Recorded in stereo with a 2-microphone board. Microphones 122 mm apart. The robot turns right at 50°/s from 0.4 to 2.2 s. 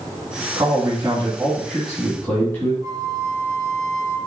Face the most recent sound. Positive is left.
turn(degrees=-30)  # may be behind; listen again after turning